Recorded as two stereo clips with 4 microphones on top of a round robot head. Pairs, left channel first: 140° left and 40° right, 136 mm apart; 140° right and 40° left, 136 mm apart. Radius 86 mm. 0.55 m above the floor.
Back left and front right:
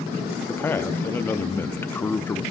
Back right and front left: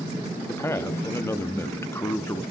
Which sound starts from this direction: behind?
A man speaking, at 0.5 s.